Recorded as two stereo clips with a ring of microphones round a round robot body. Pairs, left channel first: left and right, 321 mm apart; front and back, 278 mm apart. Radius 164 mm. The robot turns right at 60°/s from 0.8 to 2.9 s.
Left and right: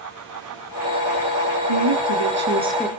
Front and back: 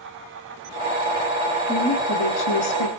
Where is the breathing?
No breathing in this recording.